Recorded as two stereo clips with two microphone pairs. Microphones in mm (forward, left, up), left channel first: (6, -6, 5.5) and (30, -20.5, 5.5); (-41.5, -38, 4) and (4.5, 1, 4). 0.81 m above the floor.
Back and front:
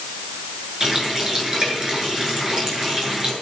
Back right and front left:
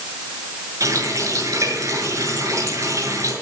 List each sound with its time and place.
0.8 s a running tap: 25° left, 7.5 m